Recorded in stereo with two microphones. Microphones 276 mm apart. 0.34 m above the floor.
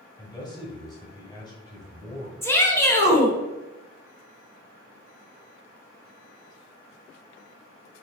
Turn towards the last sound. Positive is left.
turn(degrees=10)  # may be behind; listen again after turning